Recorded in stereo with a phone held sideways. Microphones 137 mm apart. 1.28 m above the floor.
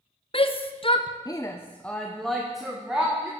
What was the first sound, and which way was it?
A shout, 40° left (ahead or behind).